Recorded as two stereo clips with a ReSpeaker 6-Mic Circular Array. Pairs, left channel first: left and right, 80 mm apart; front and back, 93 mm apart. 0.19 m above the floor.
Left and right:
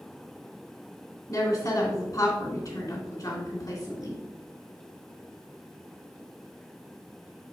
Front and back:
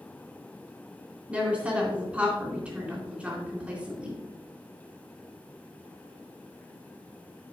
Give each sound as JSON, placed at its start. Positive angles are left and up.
{"t": 1.3, "sound": "a woman speaking", "azimuth_deg": 105, "distance_m": 2.5}